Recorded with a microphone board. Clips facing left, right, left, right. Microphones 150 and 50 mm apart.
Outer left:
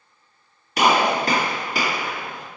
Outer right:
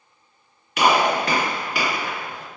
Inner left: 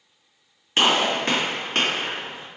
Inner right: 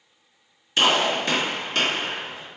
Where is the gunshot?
40° left (ahead or behind), 1.7 m.